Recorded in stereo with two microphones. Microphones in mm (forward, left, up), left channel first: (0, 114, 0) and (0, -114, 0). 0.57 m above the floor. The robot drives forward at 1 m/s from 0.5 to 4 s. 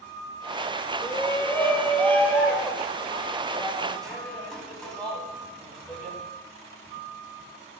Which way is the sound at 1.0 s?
15° left (ahead or behind).